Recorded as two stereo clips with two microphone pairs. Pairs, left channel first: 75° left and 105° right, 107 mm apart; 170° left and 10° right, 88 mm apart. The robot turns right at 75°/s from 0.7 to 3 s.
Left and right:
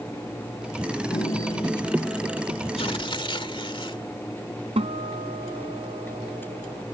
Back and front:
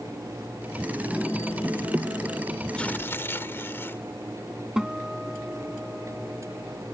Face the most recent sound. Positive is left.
turn(degrees=-95)